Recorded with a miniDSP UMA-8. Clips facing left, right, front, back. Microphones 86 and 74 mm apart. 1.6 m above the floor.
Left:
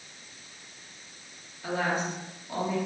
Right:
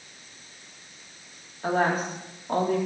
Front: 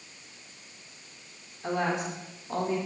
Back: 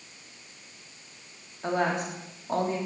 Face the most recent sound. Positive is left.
turn(degrees=-130)